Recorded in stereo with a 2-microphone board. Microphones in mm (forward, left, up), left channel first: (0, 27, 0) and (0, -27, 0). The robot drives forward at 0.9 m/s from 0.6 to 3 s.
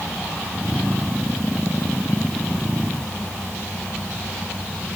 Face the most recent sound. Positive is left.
No sound to turn to.